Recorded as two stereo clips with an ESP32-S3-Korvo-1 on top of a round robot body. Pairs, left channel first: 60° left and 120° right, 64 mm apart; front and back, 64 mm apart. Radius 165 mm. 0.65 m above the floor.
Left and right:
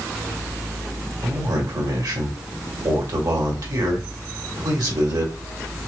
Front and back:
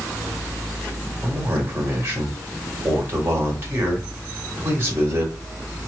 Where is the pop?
I don't hear a pop.